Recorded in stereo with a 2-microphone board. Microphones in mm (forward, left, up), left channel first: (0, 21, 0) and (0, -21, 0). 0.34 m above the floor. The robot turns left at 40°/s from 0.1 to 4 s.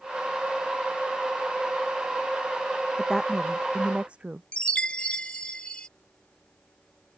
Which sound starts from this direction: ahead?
A woman speaking, at 3.0 s.